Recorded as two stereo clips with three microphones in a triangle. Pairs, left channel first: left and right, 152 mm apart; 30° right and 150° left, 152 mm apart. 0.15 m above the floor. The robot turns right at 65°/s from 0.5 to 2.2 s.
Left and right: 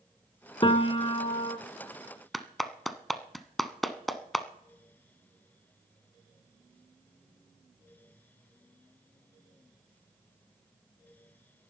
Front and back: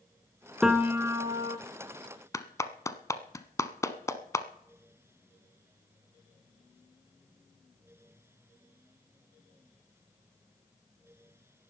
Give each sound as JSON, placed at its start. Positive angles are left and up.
{"t": 0.6, "sound": "a piano", "azimuth_deg": 65, "distance_m": 0.9}
{"t": 2.3, "sound": "a clap", "azimuth_deg": 0, "distance_m": 0.9}